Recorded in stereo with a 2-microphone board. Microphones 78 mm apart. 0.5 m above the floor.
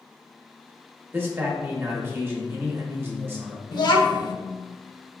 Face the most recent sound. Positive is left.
turn(degrees=55)  # may be behind; listen again after turning